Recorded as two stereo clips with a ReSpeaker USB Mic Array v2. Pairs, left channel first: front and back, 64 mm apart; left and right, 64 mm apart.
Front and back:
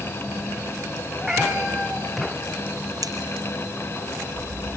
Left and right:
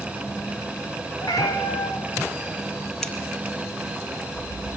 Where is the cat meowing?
95° left, 4.5 m.